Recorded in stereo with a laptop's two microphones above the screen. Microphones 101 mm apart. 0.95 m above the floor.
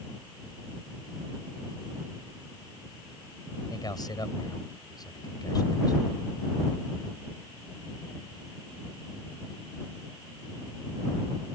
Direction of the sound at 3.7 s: 45° left (ahead or behind).